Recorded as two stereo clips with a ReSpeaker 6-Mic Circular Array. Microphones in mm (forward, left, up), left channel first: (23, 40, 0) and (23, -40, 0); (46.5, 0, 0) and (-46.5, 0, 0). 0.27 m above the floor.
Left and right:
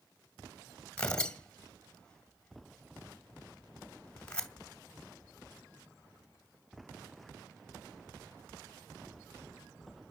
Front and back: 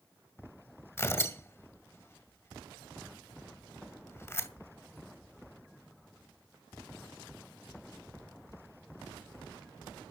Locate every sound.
1.0 s tearing paper: 25° left, 1.8 m